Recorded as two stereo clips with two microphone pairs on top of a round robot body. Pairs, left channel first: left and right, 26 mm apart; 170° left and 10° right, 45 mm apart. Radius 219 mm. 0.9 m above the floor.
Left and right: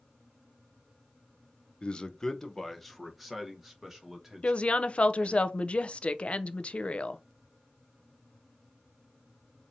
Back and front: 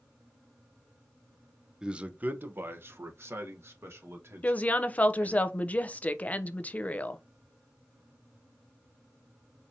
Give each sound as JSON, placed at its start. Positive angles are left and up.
{"t": 1.8, "sound": "a man speaking", "azimuth_deg": 50, "distance_m": 0.7}
{"t": 4.4, "sound": "a woman speaking", "azimuth_deg": 120, "distance_m": 0.6}